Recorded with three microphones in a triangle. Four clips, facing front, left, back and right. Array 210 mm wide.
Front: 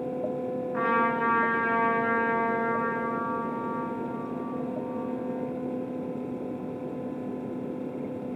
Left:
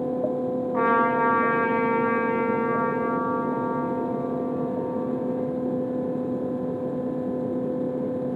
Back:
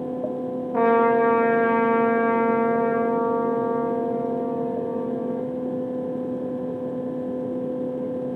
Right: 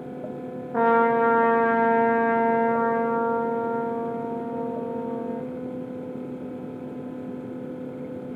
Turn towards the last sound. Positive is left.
turn(degrees=-140)